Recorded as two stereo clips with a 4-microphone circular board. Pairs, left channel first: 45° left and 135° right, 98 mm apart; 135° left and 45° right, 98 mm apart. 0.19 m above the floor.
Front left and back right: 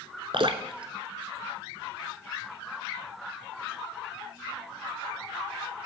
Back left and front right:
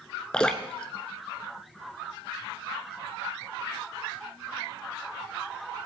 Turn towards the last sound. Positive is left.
turn(degrees=-145)